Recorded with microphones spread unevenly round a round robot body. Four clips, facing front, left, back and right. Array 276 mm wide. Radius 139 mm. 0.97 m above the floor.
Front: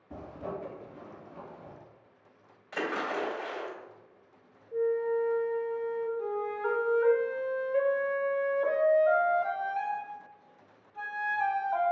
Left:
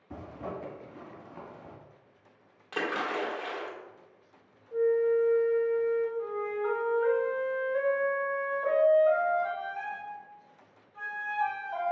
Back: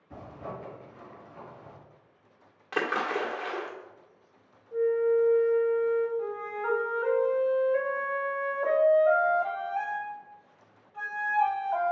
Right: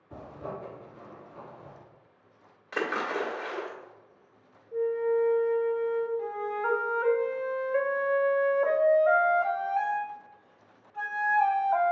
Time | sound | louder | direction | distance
0.1 | a zipper | even, front 2 dB | 80° left | 2 m
2.7 | a splash | right 2 dB, back 3 dB | 170° left | 1.7 m
4.7 | a flute | left 2 dB, back 4 dB | 145° left | 1.1 m
6.2 | a flute | right 1 dB, front 1 dB | 115° right | 0.9 m